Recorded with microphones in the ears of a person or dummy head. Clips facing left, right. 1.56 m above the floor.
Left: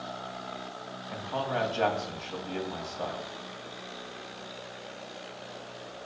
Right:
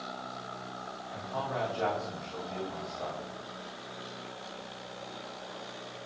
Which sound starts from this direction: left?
A man speaking, at 1.1 s.